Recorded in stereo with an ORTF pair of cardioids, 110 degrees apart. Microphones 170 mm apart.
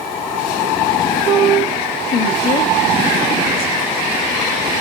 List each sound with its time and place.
2.1 s a woman speaking: 60° left, 2.5 m